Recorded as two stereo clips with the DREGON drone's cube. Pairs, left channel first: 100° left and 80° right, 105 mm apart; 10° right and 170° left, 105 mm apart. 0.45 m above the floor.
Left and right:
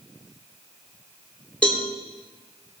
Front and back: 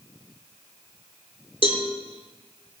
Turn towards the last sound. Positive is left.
turn(degrees=20)